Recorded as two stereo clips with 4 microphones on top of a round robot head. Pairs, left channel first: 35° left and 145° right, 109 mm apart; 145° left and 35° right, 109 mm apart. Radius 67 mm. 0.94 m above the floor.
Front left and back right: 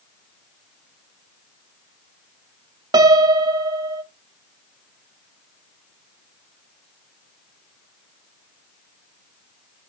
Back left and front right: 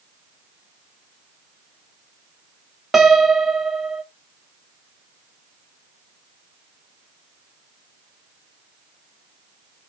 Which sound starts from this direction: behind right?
A piano, at 2.9 s.